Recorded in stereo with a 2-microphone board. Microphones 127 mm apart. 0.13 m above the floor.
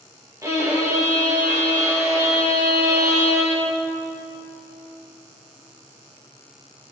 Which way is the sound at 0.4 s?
25° right (ahead or behind).